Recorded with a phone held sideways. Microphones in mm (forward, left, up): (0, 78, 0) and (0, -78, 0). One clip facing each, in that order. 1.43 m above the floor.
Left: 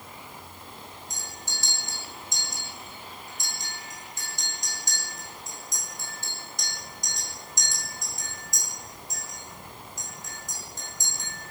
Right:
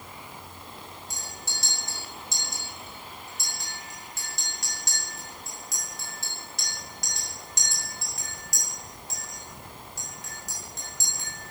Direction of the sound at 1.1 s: 75° right (ahead or behind).